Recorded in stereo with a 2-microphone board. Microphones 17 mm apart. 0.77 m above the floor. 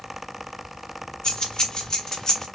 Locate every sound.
1.2 s keys jangling: 55° left (ahead or behind), 1.7 m; by 2.5 s 40° left (ahead or behind), 1.2 m